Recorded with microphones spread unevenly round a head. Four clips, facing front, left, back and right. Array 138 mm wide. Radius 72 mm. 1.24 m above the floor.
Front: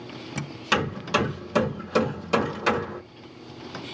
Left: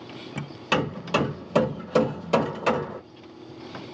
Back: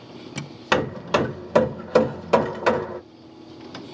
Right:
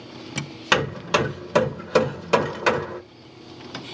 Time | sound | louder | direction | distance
0.7 | hammering | right 3 dB, back 4 dB | 155° right | 1.2 m